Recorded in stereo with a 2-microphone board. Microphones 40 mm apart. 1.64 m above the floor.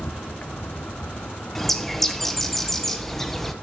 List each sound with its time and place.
0.0 s an insect: 60° left (ahead or behind), 1.0 m
1.6 s a bird: 5° left (ahead or behind), 0.7 m